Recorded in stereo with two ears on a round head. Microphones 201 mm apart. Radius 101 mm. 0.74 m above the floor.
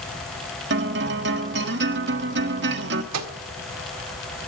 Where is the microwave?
75° right (ahead or behind), 1.7 m.